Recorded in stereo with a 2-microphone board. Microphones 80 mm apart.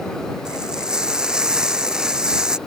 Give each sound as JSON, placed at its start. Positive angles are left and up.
{"t": 0.5, "sound": "frying", "side_deg": -10}